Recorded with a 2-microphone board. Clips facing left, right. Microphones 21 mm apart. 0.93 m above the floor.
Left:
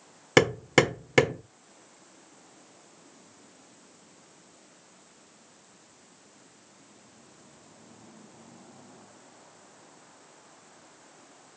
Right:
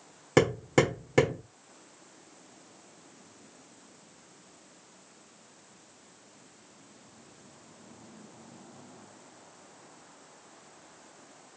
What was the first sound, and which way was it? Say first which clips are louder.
Hammering: left 3 dB; 60° left (ahead or behind).